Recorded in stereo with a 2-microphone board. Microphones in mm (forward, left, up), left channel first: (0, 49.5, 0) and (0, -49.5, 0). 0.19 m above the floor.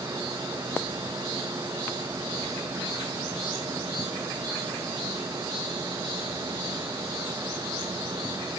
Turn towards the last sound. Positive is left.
No sound to turn to.